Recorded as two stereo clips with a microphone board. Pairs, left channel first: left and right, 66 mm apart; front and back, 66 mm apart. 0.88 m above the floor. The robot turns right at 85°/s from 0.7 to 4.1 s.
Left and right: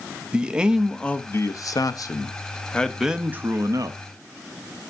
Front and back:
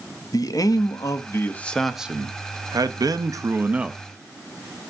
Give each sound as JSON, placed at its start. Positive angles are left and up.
{"t": 0.3, "sound": "a man speaking", "azimuth_deg": -10, "distance_m": 0.5}